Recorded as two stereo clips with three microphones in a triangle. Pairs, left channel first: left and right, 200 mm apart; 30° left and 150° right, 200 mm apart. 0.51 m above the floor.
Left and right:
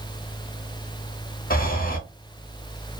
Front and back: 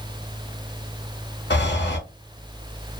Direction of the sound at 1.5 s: 50° left.